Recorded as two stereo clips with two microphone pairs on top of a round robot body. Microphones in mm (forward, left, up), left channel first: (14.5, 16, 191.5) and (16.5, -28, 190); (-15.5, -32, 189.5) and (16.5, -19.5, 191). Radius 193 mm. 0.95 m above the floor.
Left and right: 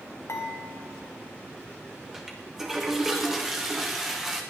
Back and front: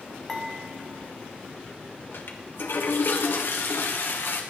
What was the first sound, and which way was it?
Dishes clattering, 120° left.